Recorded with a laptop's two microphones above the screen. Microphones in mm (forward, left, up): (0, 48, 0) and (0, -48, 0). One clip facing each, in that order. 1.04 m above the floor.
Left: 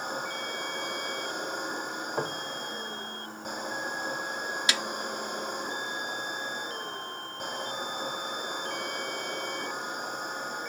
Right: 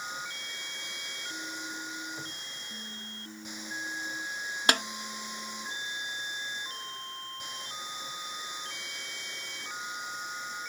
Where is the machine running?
55° left (ahead or behind).